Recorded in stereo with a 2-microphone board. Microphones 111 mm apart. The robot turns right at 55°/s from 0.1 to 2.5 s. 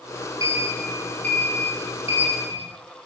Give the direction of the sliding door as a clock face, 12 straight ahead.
1 o'clock.